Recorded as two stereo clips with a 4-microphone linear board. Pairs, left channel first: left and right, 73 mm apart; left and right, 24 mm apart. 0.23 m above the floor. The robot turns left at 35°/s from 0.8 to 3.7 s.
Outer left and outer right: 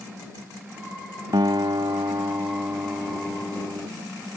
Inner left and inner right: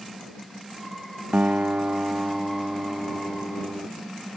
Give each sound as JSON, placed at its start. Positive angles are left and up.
{"t": 1.3, "sound": "a guitar", "azimuth_deg": -90}